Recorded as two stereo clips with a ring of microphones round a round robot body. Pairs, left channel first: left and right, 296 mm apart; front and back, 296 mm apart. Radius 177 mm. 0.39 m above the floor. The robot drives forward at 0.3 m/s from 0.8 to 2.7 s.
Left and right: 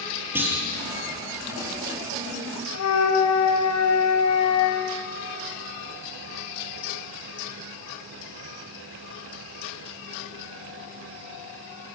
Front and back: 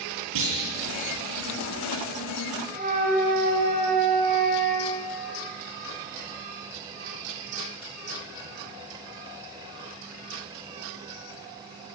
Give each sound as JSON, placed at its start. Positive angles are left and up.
{"t": 0.3, "sound": "a clunk", "azimuth_deg": -175, "distance_m": 8.5}
{"t": 2.7, "sound": "a flute", "azimuth_deg": 115, "distance_m": 3.0}